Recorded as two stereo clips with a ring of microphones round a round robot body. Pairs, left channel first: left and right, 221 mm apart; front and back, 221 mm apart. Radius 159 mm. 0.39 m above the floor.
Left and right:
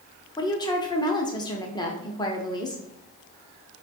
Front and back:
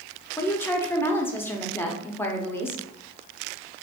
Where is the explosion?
No explosion in this recording.